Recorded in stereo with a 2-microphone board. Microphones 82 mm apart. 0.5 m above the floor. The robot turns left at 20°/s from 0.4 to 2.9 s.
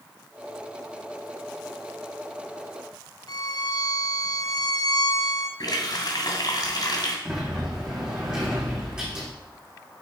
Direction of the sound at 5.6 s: 55° left (ahead or behind).